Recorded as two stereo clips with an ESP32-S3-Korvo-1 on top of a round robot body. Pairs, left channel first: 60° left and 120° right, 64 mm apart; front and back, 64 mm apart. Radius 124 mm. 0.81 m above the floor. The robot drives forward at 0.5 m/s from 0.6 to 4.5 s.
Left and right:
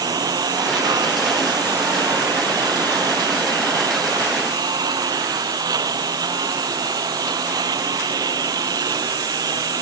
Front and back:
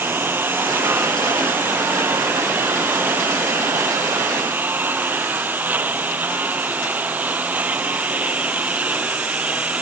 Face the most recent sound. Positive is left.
turn(degrees=-110)